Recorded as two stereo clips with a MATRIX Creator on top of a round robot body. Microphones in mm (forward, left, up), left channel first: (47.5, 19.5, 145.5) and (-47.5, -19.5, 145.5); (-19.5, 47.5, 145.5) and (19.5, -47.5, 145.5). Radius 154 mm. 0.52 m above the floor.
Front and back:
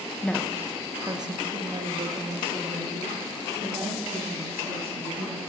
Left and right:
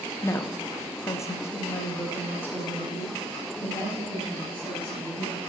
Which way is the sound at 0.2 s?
85° left.